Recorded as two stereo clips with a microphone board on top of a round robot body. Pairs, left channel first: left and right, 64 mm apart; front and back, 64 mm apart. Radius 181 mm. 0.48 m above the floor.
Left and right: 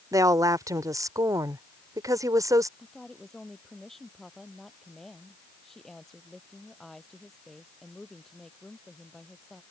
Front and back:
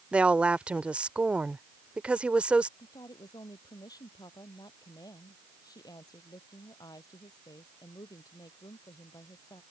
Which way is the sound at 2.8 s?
5° left.